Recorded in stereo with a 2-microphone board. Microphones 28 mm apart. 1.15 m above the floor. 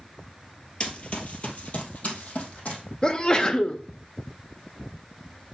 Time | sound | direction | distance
0.8 | running footsteps | 40° left (ahead or behind) | 1.4 m
3.0 | a sneeze | 30° left (ahead or behind) | 0.9 m